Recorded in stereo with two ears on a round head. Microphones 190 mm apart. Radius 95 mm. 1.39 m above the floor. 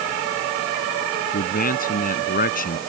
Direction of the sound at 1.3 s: 45° left (ahead or behind).